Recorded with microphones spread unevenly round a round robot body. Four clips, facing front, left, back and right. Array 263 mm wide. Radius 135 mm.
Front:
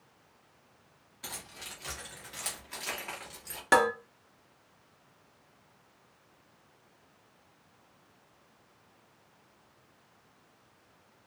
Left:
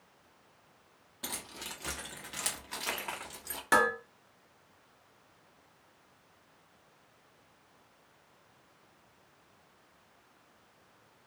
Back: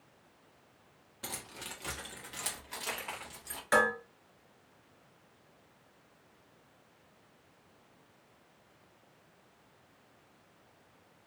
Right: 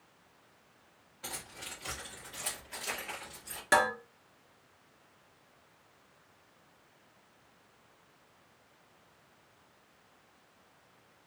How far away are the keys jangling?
About 1.4 m.